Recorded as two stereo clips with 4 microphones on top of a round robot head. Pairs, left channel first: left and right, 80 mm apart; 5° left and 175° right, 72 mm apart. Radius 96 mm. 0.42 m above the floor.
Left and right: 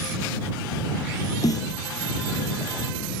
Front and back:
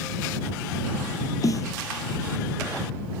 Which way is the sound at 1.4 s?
50° left.